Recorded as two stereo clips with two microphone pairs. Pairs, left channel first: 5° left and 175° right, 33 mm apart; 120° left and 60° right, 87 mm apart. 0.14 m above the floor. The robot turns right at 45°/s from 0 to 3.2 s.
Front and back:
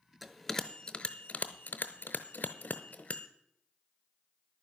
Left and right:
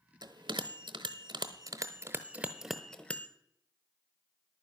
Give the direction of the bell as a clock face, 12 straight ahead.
3 o'clock.